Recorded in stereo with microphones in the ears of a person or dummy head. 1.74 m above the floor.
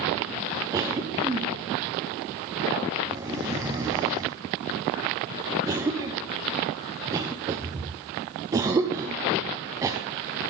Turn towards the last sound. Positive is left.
turn(degrees=-20)  # may be behind; listen again after turning